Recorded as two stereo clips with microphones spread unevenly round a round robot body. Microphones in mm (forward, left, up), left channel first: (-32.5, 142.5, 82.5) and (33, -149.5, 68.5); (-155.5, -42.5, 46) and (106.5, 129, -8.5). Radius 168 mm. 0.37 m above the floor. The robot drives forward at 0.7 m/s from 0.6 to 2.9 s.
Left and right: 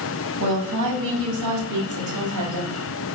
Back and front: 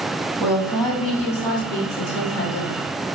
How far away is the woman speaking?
About 2.5 m.